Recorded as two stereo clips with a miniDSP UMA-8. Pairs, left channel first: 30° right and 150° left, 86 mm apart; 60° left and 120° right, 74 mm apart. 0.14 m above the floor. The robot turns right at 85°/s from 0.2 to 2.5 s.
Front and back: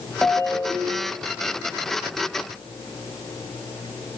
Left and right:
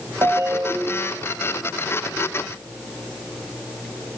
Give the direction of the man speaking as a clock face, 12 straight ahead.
No man speaking in this recording.